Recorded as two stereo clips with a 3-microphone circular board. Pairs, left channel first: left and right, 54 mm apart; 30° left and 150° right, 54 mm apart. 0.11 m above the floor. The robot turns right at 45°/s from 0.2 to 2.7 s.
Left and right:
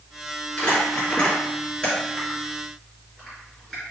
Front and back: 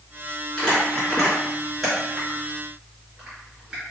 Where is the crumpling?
75° left, 1.7 m; by 3.8 s 170° left, 1.7 m.